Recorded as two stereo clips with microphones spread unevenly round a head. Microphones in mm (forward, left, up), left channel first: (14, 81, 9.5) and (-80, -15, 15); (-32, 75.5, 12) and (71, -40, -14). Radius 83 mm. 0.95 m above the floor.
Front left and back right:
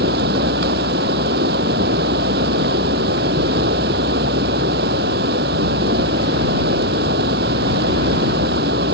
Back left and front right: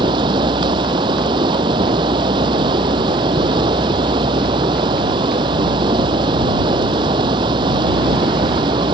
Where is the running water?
115° right.